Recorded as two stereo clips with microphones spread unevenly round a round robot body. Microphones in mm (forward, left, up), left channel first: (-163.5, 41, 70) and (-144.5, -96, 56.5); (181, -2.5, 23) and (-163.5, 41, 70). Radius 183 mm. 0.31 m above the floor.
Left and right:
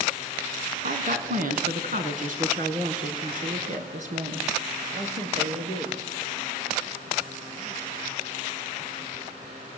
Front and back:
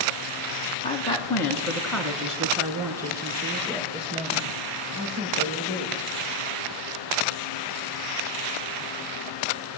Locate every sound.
0.8 s a woman speaking: 80° right, 3 m; by 6.0 s 120° right, 7 m